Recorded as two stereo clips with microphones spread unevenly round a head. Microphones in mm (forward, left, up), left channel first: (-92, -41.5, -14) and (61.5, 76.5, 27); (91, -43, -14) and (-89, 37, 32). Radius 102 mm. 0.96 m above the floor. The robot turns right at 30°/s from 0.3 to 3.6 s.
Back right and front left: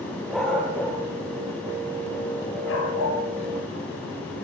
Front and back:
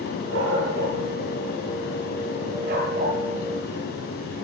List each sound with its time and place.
0.3 s a dog barking: 125° left, 6 m; by 3.2 s 150° right, 6 m